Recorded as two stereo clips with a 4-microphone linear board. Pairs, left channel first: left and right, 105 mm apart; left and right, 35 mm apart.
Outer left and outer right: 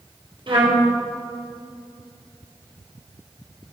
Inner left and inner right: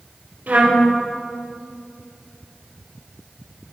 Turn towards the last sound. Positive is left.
turn(degrees=-50)  # may be behind; listen again after turning